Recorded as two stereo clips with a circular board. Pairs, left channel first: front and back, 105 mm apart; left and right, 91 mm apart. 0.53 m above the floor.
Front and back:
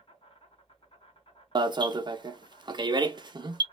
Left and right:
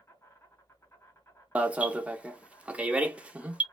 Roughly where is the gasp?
I don't hear a gasp.